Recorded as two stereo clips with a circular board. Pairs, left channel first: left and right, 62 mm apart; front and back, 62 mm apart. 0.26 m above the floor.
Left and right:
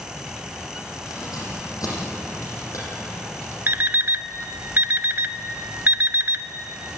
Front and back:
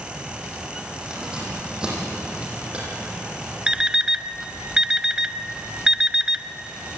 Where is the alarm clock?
110° right, 0.8 m.